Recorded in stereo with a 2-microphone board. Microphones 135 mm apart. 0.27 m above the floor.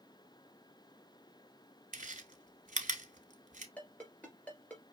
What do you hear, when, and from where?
1.9 s chewing: 75° right (ahead or behind), 0.9 m
3.8 s a ringtone: 10° left (ahead or behind), 2.5 m